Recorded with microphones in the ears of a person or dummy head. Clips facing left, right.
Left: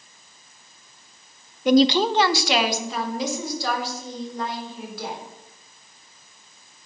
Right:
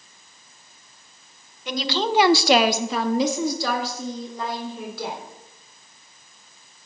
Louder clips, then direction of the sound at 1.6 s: Left 9 dB; 45° left (ahead or behind).